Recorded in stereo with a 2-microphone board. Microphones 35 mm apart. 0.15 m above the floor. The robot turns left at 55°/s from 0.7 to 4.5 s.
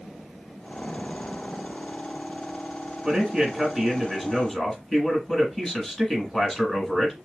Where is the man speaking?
20° right (ahead or behind), 1.7 m; by 7.2 s 15° left (ahead or behind), 1.7 m.